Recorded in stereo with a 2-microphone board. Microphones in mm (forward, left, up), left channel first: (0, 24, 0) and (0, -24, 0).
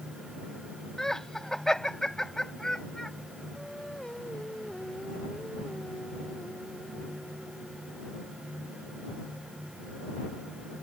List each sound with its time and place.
1.0 s laughter: 10° left (ahead or behind)
3.5 s singing: 15° left (ahead or behind)